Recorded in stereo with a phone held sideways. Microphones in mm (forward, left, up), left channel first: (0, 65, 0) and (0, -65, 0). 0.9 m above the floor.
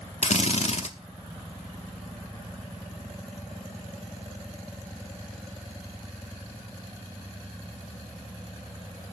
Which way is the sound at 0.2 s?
60° left (ahead or behind).